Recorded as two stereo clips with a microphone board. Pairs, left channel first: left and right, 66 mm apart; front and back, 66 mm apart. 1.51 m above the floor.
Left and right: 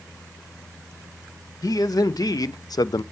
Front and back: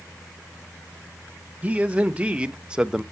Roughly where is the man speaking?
Left.